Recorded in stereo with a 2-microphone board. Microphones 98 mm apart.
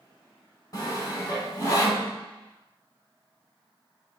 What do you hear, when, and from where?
0.7 s sawing: 35° left (ahead or behind), 1.5 m